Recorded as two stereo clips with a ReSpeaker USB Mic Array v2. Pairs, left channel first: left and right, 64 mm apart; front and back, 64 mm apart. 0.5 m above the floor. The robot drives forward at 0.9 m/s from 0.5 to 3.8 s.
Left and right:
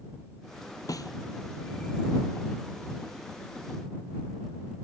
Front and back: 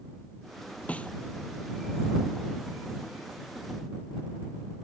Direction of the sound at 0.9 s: 70° left.